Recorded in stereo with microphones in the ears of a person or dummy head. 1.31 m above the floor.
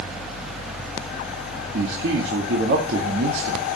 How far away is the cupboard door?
I don't hear a cupboard door.